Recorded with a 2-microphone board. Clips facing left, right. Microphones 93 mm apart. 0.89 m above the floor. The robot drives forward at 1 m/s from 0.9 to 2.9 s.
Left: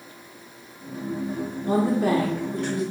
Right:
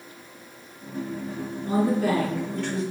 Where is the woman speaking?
35° left (ahead or behind), 0.6 m; by 2.8 s 15° left (ahead or behind), 1.5 m.